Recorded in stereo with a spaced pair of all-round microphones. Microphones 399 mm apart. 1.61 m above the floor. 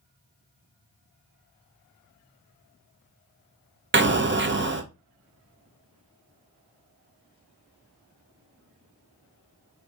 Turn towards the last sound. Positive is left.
turn(degrees=-30)  # may be behind; listen again after turning